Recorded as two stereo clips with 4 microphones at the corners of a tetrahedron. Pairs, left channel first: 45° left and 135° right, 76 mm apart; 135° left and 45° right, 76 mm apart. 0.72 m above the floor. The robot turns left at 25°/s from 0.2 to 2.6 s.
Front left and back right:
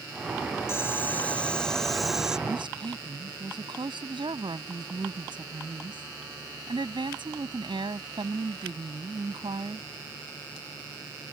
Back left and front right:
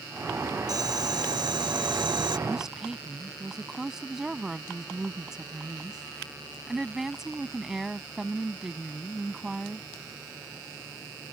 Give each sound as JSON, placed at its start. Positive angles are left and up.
{"t": 0.7, "sound": "boiling", "azimuth_deg": -10}
{"t": 2.5, "sound": "a woman speaking", "azimuth_deg": -125}